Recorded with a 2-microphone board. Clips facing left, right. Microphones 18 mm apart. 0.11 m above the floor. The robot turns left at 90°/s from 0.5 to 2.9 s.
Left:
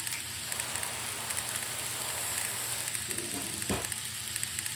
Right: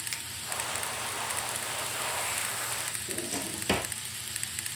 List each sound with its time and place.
0.1 s a finger snap: 20° right (ahead or behind), 1.4 m
3.1 s a drawer: 60° right (ahead or behind), 1.1 m